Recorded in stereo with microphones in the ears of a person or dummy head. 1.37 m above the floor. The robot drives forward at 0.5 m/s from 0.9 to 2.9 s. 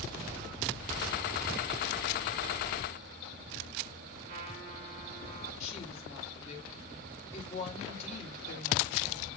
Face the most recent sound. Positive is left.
turn(degrees=40)  # may be behind; listen again after turning